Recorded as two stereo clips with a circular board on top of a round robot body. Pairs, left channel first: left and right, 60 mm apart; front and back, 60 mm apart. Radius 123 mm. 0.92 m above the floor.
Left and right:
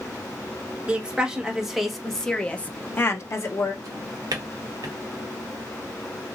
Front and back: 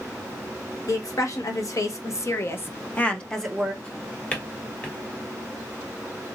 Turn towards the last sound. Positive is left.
turn(degrees=-75)